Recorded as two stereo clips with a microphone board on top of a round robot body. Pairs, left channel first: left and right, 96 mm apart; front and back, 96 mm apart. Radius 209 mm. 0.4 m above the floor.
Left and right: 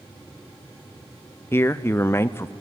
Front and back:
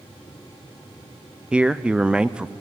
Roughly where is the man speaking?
Left.